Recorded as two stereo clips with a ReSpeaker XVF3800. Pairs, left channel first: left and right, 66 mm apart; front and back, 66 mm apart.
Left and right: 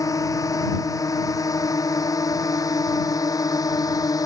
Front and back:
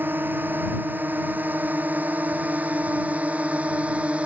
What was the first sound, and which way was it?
A drone, 120° left.